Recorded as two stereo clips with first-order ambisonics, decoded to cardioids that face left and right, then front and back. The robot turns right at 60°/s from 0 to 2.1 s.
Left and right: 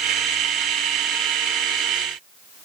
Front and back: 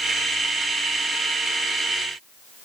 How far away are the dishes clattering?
I don't hear dishes clattering.